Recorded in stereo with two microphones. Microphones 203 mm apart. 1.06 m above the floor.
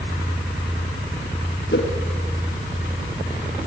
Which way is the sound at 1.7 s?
60° left (ahead or behind).